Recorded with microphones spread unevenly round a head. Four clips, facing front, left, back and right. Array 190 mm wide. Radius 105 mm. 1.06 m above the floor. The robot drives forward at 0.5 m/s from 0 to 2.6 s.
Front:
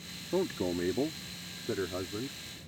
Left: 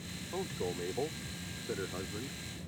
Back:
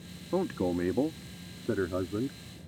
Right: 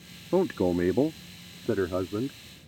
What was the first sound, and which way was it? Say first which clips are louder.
A man speaking: right 14 dB, back 2 dB; 100° right.